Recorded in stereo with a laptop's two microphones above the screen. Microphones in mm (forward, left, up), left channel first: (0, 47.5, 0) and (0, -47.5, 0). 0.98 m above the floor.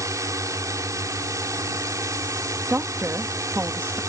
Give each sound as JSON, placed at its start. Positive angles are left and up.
{"t": 0.0, "sound": "a drone", "side_deg": -35}
{"t": 2.7, "sound": "a woman speaking", "side_deg": -25}